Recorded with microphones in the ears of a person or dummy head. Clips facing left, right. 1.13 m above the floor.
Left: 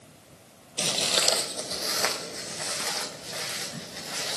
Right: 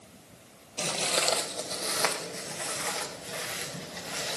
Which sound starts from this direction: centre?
Footsteps, at 0.8 s.